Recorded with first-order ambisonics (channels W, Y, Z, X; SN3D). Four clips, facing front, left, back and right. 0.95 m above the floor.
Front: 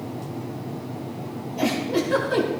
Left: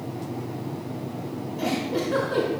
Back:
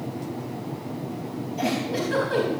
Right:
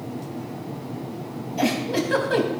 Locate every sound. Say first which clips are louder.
1.6 s a giggle: right 4 dB, front 3 dB; 90° right, 4 m